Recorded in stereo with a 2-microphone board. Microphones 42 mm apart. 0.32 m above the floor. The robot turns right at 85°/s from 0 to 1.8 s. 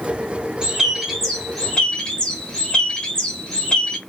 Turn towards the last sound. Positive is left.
turn(degrees=15)  # may be behind; listen again after turning